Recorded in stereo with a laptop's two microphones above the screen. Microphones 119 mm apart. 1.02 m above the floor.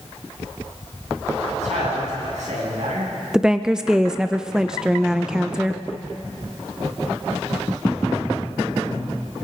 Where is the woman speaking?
5° right (ahead or behind), 0.5 m.